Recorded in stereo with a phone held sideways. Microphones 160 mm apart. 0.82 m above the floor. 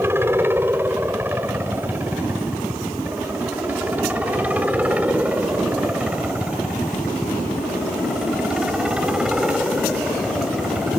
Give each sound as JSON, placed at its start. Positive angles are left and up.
{"t": 0.0, "sound": "a helicopter", "side_deg": -15}